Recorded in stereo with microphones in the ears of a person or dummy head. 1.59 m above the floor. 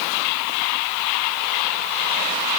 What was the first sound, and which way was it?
Only background noise.